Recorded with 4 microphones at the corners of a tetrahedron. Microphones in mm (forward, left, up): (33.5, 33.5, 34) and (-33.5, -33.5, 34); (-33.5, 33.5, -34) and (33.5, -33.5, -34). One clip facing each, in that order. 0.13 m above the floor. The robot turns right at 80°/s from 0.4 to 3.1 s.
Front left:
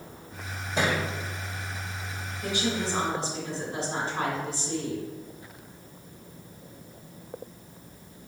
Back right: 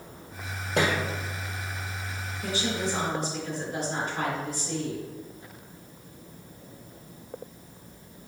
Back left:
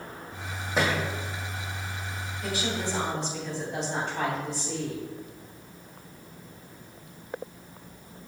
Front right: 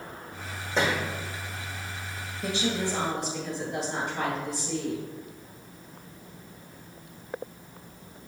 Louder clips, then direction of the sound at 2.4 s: Front left 1 dB, front right 2 dB; 20° right.